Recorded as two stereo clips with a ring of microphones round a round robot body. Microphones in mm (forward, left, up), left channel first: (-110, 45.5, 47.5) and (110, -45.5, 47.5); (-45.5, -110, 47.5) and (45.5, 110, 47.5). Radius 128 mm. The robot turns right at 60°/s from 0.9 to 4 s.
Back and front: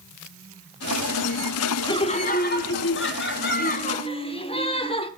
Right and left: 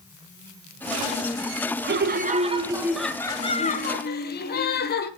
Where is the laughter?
90° left, 1.1 m; by 5.1 s 145° right, 1.1 m.